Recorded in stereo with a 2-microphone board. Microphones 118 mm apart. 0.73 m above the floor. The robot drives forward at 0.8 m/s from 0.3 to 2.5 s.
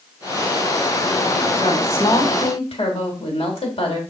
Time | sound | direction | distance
1.6 | a woman speaking | 65° left (ahead or behind) | 2.5 m